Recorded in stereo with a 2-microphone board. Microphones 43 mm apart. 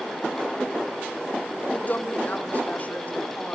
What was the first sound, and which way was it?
A woman speaking, 35° left (ahead or behind).